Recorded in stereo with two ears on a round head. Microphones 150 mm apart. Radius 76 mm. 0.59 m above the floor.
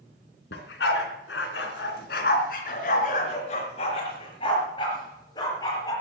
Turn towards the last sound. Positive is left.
turn(degrees=20)  # may be behind; listen again after turning